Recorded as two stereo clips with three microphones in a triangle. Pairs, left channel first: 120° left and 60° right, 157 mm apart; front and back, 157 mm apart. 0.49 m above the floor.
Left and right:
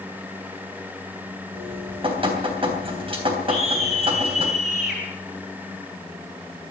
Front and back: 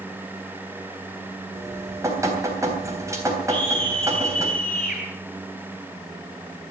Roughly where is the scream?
Ahead left.